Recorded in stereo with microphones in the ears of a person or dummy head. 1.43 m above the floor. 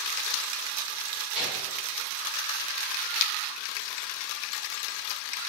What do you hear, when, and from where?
1.4 s a gunshot: 5° right (ahead or behind), 1.4 m